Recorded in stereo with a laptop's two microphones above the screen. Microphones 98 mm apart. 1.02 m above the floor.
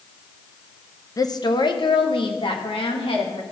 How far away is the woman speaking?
About 0.7 m.